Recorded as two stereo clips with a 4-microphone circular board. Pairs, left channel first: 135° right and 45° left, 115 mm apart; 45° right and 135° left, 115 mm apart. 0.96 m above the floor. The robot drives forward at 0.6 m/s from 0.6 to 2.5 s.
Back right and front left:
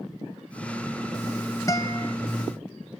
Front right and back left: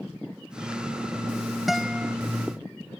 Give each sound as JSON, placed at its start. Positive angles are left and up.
{"t": 1.7, "sound": "a guitar", "azimuth_deg": -135}